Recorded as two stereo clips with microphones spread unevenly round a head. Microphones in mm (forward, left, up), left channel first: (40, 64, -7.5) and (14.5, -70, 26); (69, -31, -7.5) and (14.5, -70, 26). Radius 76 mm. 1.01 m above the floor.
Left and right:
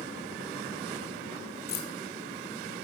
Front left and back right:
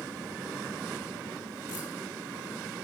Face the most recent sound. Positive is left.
turn(degrees=100)